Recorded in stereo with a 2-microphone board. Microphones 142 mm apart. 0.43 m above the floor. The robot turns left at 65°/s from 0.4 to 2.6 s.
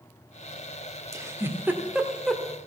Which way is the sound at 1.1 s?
20° right (ahead or behind).